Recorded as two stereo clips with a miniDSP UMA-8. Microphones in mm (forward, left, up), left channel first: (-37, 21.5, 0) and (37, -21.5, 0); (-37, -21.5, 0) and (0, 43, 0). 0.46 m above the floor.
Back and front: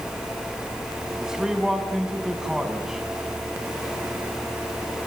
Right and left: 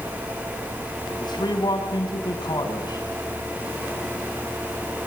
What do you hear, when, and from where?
1.2 s a man speaking: 115° right, 4.5 m